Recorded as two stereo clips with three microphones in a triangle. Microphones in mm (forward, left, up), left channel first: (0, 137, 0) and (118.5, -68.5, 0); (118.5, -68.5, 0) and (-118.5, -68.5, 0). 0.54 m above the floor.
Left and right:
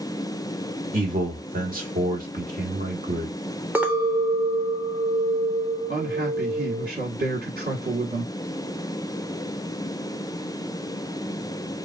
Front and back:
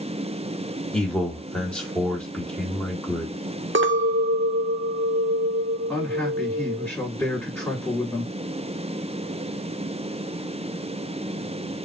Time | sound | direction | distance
0.9 | a man speaking | 85° right | 1.2 m
3.8 | a clink | 140° right | 0.6 m
5.9 | a man speaking | 75° right | 1.6 m